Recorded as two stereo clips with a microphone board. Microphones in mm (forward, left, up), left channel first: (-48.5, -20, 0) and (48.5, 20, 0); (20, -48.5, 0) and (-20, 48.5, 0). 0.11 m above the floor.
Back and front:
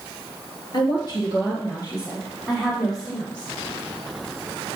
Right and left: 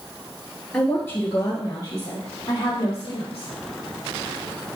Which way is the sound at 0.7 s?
140° right.